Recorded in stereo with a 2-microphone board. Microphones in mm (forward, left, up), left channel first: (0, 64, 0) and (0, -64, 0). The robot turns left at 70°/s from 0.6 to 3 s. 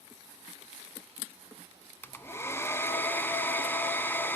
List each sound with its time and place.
2.0 s a hair dryer: 15° left (ahead or behind), 0.5 m